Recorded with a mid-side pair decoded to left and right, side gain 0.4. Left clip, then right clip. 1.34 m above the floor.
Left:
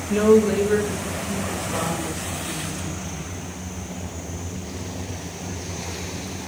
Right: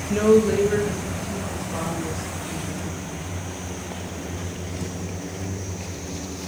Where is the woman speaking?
10° left, 1.2 m; by 3.3 s 20° left, 3.5 m.